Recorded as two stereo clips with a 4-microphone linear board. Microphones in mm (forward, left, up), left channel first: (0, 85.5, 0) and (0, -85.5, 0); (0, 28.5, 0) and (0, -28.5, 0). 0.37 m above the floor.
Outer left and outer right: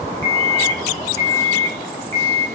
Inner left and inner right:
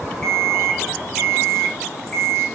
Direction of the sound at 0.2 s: 15° left (ahead or behind).